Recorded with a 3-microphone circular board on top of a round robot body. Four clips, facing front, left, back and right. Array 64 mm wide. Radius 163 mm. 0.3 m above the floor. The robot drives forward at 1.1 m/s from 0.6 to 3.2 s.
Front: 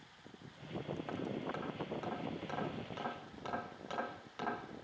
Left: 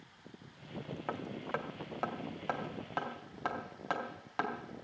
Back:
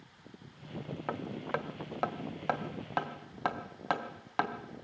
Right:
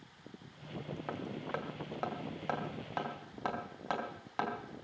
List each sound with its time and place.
1.1 s hammering: 155° left, 1.4 m; by 4.5 s 170° left, 3.5 m